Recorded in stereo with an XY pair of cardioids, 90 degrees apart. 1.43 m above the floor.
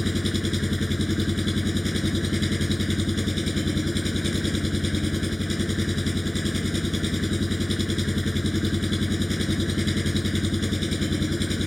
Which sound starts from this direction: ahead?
An engine running, at 0.0 s.